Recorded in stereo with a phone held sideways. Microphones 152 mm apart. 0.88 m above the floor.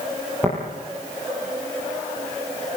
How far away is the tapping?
About 9.5 m.